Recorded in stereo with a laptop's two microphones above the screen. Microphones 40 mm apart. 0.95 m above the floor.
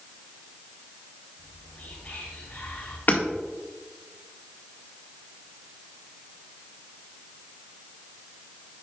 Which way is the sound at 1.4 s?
40° left (ahead or behind).